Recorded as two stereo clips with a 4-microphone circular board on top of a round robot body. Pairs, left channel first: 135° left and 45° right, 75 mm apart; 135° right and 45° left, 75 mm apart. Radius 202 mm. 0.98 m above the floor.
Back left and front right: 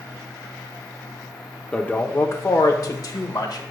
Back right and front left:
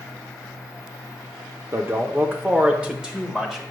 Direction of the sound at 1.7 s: 70° left.